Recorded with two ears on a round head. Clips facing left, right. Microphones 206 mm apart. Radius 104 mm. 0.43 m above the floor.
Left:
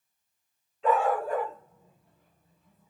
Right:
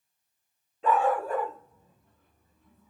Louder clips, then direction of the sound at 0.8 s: Even; 30° right (ahead or behind).